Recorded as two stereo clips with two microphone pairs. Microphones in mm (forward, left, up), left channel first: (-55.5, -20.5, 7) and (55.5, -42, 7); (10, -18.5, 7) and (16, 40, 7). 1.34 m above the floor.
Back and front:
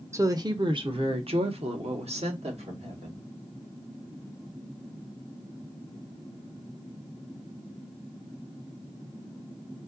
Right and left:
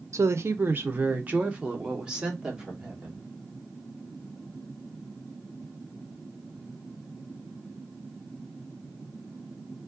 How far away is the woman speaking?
About 0.6 m.